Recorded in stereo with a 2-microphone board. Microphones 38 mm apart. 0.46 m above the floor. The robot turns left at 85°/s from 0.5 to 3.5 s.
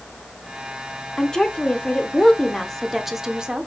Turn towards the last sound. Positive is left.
turn(degrees=-20)  # may be behind; listen again after turning